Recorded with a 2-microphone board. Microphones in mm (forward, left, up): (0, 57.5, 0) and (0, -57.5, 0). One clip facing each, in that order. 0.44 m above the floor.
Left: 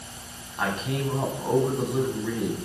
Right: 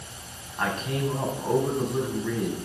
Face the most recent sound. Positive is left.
turn(degrees=5)  # may be behind; listen again after turning